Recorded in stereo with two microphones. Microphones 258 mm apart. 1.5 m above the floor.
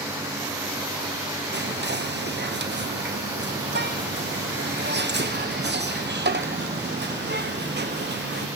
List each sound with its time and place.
1.5 s whispering: 45° right (ahead or behind), 0.8 m